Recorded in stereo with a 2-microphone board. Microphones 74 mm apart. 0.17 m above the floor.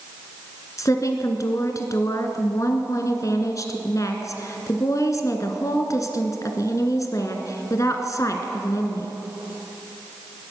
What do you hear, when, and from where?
0.8 s a woman speaking: 45° left (ahead or behind), 1.6 m